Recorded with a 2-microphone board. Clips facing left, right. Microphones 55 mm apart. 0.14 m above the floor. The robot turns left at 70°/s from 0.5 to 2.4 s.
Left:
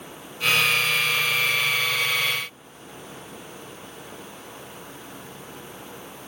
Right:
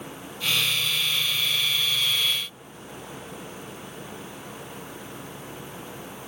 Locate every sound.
Only background noise.